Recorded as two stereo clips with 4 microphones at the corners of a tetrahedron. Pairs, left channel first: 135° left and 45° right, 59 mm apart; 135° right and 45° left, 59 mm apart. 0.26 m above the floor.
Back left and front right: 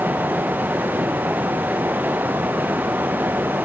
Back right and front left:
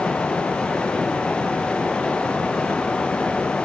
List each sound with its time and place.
Only background noise.